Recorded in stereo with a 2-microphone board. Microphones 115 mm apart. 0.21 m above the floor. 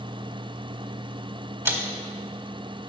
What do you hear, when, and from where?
1.6 s a man speaking: 20° right (ahead or behind), 1.1 m